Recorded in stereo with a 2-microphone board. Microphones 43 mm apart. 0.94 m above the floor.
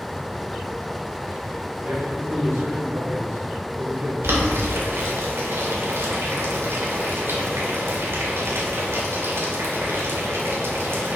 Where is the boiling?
75° right (ahead or behind), 3 m.